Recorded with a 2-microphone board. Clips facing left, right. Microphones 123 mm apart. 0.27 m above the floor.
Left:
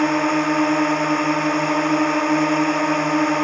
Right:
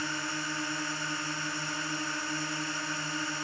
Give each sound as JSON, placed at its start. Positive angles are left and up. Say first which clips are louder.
{"t": 0.0, "sound": "a drone", "louder": "left 18 dB", "side_deg": 65}